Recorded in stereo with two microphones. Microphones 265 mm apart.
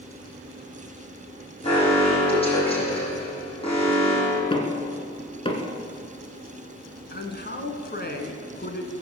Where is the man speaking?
40° left (ahead or behind), 1.8 m.